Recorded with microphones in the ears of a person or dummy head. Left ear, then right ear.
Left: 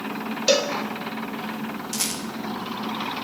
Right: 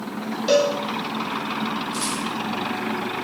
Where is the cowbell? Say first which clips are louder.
Right 2 dB; 20° left (ahead or behind), 0.7 m.